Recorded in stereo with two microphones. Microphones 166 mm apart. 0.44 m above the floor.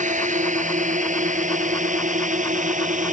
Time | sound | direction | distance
0.0 | a drone | 50° right (ahead or behind) | ?